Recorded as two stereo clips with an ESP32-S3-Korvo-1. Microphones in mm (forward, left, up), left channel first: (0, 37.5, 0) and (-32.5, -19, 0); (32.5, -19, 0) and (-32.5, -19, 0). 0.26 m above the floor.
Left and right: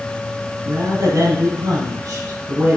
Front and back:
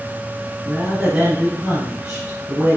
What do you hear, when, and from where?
0.7 s a woman speaking: 110° right, 3.5 m